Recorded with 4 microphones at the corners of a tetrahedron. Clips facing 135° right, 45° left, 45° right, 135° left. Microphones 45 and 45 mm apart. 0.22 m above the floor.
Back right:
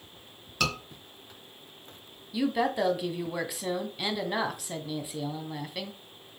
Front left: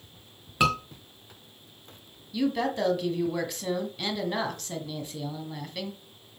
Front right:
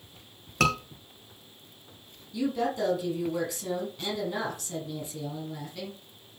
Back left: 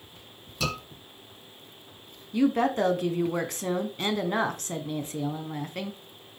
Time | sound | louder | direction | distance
0.6 | a scream | front left 6 dB, front right 6 dB | 20° right | 3 m
2.3 | a woman speaking | even, back left 5 dB | 145° left | 1.8 m